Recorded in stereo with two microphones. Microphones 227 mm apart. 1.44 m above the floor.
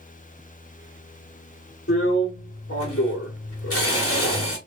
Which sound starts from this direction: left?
A drill, at 1.9 s.